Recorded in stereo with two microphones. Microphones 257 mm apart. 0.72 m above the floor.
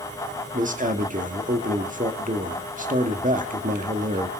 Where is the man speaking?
30° right (ahead or behind), 1.6 m.